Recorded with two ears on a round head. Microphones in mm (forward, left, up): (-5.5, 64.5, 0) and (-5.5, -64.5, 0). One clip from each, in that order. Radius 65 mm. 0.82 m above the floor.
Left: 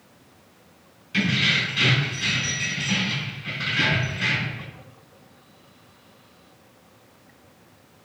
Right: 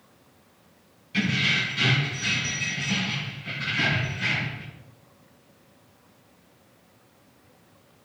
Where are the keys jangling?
25° left (ahead or behind), 1.8 m.